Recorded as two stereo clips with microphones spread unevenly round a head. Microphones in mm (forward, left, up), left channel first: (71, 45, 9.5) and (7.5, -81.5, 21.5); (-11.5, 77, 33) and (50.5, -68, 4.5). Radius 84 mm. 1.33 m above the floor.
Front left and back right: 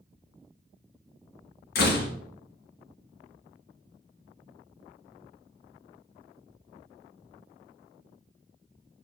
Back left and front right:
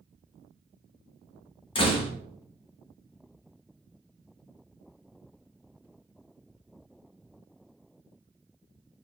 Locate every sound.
1.8 s a door slam: 65° left, 1.0 m